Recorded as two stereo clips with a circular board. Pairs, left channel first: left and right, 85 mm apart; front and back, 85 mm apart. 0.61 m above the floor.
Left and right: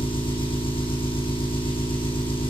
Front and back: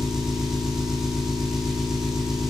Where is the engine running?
95° left, 9.5 m.